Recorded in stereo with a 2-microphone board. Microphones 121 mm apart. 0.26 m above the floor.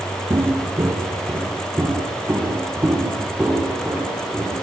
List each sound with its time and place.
0.3 s footsteps: 35° right (ahead or behind), 3.5 m; by 4.5 s 15° right (ahead or behind), 8.5 m